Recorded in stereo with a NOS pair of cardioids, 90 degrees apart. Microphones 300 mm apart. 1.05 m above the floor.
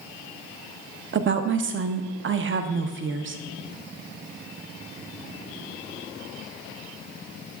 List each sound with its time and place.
1.1 s a woman speaking: 40° right, 0.8 m